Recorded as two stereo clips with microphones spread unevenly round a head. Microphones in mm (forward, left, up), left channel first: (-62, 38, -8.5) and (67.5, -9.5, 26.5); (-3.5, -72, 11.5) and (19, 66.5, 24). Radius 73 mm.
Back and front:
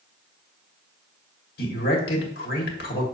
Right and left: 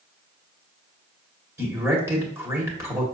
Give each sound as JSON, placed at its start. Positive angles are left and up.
{"t": 1.6, "sound": "a man speaking", "azimuth_deg": 155, "distance_m": 1.9}